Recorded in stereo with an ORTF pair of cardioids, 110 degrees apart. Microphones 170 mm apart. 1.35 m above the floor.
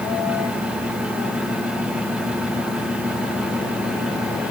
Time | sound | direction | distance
0.0 | a fan | 5° right | 1.8 m